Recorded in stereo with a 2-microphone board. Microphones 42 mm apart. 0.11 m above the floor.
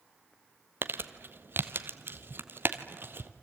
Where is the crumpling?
60° right (ahead or behind), 1.1 m.